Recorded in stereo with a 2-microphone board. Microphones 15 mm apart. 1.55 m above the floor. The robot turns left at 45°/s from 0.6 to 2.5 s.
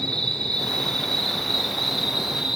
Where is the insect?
60° left, 4.5 m; by 2.6 s 25° right, 4.5 m.